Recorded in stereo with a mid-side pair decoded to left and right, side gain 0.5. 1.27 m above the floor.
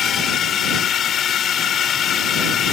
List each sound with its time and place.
0.0 s a drone: 55° left